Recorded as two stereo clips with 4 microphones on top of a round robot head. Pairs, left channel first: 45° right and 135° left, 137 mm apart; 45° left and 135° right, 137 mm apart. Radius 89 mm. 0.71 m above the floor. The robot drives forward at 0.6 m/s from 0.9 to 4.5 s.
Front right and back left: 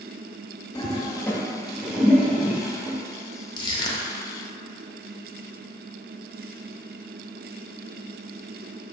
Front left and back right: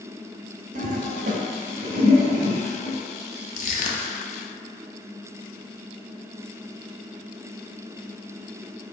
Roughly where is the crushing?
Ahead.